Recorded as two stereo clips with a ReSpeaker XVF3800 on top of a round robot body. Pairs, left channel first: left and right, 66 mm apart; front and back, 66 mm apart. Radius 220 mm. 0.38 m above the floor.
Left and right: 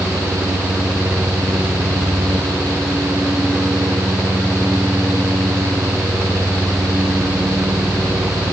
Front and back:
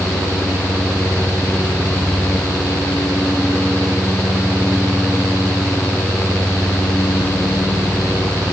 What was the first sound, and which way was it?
Only background noise.